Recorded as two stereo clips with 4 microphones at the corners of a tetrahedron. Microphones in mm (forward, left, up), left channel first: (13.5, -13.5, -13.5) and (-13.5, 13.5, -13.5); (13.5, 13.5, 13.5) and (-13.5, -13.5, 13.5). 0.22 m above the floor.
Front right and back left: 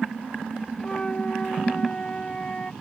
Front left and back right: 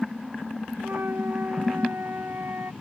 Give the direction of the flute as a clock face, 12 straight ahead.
4 o'clock.